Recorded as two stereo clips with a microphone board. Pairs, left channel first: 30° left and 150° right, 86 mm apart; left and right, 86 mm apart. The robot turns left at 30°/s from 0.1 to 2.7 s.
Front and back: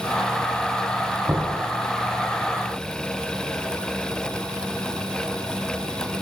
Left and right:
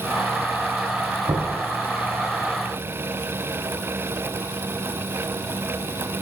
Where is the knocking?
80° right, 4 m; by 1.6 s 90° right, 4 m.